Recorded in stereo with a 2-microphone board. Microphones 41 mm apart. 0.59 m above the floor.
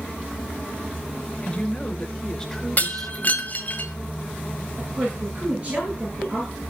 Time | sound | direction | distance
1.4 | a woman speaking | 25° left (ahead or behind) | 2.5 m
2.8 | breaking glass | 40° left (ahead or behind) | 1.7 m
4.8 | a woman speaking | 30° right (ahead or behind) | 8 m